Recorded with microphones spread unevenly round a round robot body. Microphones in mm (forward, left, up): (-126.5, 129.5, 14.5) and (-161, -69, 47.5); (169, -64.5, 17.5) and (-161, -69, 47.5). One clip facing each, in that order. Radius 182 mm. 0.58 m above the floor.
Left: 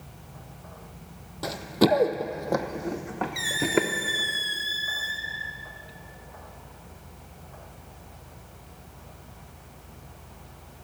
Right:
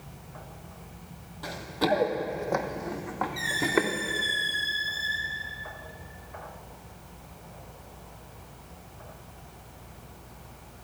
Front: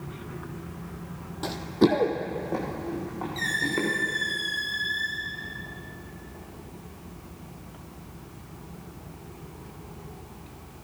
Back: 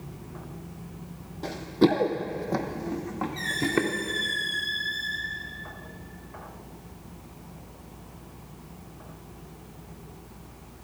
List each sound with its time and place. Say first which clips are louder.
1.4 s running footsteps: left 6 dB, even; 60° left, 0.7 m; by 3.9 s 150° left, 1.9 m
3.4 s a squeak: left 2 dB, back 4 dB; 85° left, 1.5 m